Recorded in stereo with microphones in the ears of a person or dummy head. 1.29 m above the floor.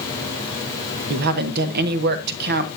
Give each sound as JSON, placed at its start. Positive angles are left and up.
{"t": 1.1, "sound": "a woman speaking", "side_deg": -60, "distance_m": 1.0}